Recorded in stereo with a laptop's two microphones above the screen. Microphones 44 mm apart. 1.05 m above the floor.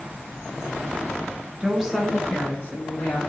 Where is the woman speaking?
25° right (ahead or behind), 0.6 m; by 3.2 s 45° left (ahead or behind), 1.1 m.